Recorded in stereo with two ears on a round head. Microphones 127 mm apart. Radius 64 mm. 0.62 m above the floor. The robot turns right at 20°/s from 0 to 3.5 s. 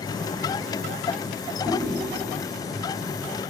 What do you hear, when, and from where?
1.6 s chewing: 10° left (ahead or behind), 1.8 m; by 2.0 s 15° left (ahead or behind), 1.8 m